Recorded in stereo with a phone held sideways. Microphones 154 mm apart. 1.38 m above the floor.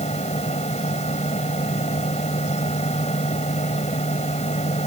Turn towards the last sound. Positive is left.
turn(degrees=45)  # may be behind; listen again after turning